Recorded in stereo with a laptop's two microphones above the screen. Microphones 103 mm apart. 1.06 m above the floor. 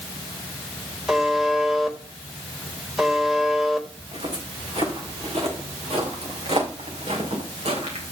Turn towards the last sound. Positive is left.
turn(degrees=-80)